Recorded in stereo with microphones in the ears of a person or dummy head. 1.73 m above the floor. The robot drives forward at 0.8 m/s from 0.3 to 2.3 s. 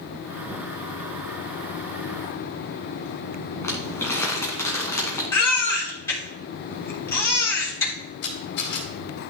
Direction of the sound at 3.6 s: 15° left (ahead or behind).